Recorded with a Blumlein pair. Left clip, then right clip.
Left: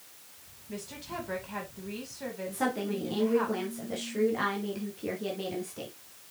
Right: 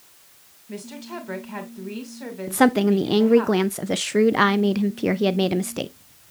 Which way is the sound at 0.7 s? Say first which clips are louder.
Right 4 dB; 15° right.